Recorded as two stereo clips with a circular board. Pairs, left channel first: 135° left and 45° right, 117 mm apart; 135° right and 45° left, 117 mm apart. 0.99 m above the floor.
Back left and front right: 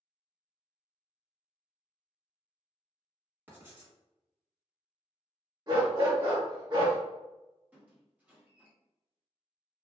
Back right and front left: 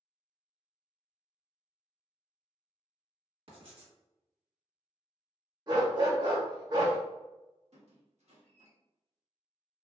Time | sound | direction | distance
3.5 | writing | 25° left | 1.4 m
5.7 | a dog barking | 5° right | 1.1 m
7.7 | a squeak | 30° left | 0.9 m